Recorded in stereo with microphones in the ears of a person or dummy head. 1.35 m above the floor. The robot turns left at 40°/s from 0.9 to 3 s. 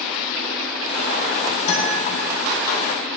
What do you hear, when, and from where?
1.7 s a guitar: 80° left, 4.5 m; by 2.0 s 70° left (ahead or behind), 4.5 m